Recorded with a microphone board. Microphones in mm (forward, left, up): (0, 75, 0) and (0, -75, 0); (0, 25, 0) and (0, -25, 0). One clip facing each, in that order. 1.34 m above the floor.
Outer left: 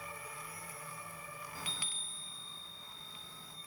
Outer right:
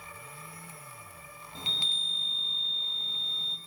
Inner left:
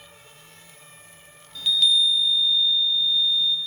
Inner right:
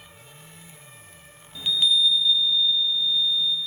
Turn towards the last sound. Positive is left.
turn(degrees=-25)  # may be behind; listen again after turning